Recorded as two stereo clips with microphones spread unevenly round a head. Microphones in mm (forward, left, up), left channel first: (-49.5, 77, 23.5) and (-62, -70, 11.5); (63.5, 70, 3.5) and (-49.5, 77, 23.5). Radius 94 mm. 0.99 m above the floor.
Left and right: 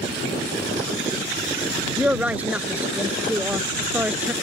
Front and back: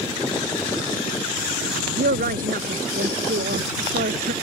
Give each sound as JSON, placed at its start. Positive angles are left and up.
{"t": 2.0, "sound": "a woman speaking", "azimuth_deg": -175}